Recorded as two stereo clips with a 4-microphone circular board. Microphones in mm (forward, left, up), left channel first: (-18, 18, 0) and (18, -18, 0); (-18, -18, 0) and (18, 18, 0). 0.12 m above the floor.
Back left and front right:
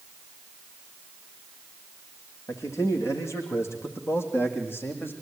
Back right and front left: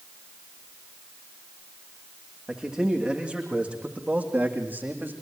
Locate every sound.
2.5 s a man speaking: 120° left, 7 m; by 5.1 s 95° left, 7 m